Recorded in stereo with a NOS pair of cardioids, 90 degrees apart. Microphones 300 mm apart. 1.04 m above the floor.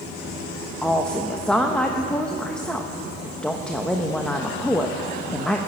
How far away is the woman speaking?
About 0.7 m.